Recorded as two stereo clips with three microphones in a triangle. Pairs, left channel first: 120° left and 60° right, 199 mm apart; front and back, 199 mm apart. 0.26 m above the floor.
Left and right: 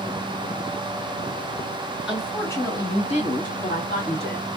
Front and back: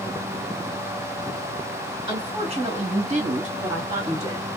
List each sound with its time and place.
2.1 s a woman speaking: 145° right, 1.4 m; by 4.5 s 130° left, 2.5 m